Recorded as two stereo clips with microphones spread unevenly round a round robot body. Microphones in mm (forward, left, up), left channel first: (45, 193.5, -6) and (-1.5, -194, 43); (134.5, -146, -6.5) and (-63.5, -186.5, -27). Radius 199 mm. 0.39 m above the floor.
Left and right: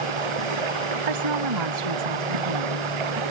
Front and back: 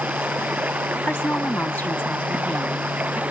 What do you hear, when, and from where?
0.0 s running water: 85° right
1.1 s a woman speaking: 70° right